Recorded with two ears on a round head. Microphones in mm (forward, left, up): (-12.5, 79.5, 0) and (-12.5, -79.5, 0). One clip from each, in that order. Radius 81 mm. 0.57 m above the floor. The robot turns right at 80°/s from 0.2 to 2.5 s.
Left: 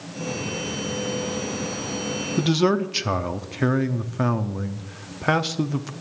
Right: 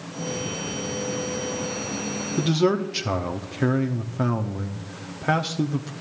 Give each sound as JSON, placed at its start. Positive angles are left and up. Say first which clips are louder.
{"t": 2.4, "sound": "a man speaking", "louder": "left 1 dB", "side_deg": 20, "distance_m": 0.7}